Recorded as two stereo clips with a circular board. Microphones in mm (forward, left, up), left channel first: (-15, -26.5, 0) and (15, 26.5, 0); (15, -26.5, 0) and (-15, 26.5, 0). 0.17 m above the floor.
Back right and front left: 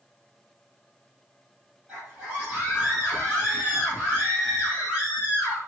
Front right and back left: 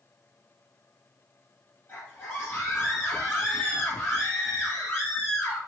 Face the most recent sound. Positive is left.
turn(degrees=-10)